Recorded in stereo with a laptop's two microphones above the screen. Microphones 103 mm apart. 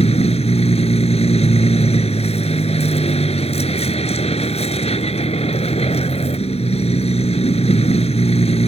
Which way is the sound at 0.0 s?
90° left.